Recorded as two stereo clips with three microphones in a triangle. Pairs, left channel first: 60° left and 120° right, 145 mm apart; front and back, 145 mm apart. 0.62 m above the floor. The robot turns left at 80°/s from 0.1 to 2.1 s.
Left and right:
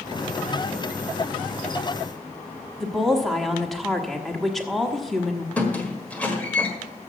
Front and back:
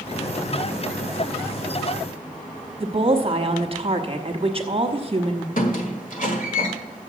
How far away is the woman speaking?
About 1.2 m.